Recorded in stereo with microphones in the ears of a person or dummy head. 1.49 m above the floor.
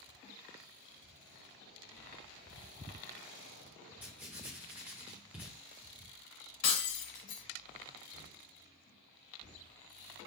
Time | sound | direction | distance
4.0 | writing | 10° right (ahead or behind) | 2.5 m
6.6 | breaking glass | 35° left (ahead or behind) | 1.7 m